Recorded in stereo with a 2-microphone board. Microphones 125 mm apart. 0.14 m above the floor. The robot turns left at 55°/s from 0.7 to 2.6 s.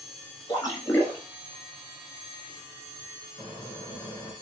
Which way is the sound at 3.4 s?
30° left (ahead or behind).